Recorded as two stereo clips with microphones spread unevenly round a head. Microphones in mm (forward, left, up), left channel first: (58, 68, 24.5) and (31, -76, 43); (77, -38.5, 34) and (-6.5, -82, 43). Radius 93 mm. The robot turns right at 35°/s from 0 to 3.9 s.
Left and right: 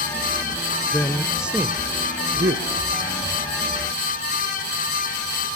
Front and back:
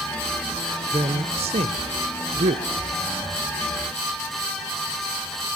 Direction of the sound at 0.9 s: 155° left.